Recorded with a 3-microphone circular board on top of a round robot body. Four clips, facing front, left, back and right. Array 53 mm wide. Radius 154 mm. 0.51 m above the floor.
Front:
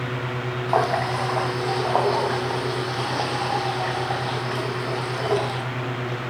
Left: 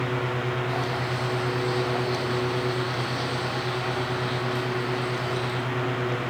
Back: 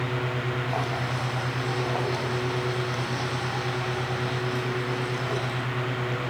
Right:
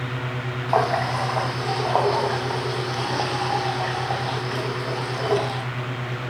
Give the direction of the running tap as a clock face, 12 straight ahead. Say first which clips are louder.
Right 7 dB, front 7 dB; 2 o'clock.